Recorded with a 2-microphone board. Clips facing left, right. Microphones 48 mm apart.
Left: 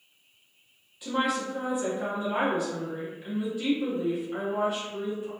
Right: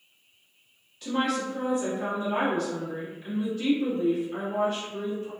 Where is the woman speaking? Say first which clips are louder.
Even; 10° left (ahead or behind), 1.0 m.